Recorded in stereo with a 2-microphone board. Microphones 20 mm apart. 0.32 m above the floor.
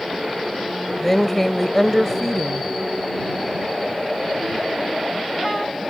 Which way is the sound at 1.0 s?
10° left (ahead or behind).